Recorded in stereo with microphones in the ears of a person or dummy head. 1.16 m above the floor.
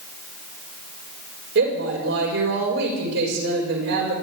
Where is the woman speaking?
60° right (ahead or behind), 5.5 m.